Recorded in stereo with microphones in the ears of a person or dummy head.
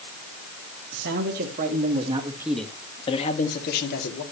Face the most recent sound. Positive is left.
turn(degrees=55)  # may be behind; listen again after turning